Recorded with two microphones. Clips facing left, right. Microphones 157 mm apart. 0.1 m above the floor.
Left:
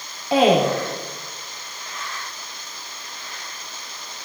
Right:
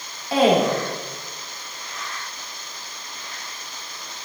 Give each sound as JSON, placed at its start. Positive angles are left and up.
{"t": 0.3, "sound": "a woman speaking", "side_deg": 20, "distance_m": 6.0}